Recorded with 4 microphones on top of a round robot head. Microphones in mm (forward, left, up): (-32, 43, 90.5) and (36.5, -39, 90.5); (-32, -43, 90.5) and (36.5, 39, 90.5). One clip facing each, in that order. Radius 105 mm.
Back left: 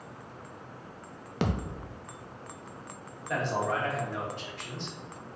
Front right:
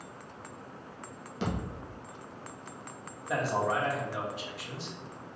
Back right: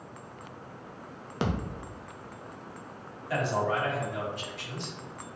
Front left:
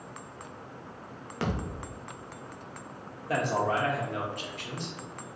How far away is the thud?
About 0.6 m.